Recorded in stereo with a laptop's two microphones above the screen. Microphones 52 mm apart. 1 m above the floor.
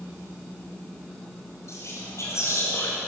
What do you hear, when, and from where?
1.7 s whispering: 65° left (ahead or behind), 5 m